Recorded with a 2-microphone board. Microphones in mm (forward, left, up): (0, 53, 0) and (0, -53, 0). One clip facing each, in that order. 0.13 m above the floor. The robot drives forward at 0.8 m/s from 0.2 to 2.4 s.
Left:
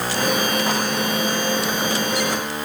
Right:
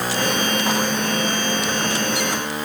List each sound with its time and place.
Only background noise.